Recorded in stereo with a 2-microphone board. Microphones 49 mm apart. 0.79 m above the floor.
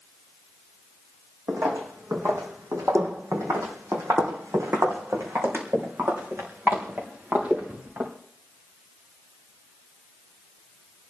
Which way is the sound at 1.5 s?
55° right (ahead or behind).